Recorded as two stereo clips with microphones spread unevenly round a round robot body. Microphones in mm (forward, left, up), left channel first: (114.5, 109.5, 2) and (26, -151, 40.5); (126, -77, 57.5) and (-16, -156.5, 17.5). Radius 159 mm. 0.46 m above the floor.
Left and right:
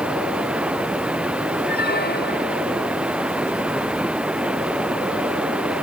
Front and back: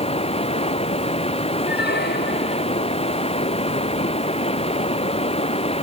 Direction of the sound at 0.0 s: 25° right.